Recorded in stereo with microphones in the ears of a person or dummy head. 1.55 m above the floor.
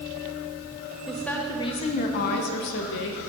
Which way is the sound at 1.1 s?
Centre (ahead or behind).